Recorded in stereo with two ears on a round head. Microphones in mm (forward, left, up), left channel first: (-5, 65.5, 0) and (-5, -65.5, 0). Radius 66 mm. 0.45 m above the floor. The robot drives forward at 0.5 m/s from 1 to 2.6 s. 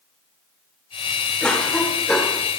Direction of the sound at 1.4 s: 5° left (ahead or behind).